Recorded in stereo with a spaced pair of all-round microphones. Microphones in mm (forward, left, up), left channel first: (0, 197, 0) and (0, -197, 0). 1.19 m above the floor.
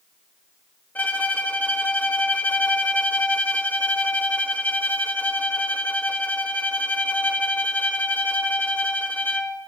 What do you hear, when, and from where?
0.9 s a violin: 5° left (ahead or behind), 1.5 m